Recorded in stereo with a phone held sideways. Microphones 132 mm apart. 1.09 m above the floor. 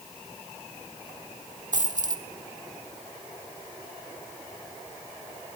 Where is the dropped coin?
70° right (ahead or behind), 1.2 m.